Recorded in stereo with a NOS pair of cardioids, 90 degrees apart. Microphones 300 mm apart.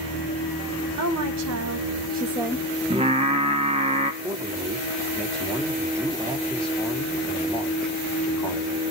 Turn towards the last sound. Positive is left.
turn(degrees=-20)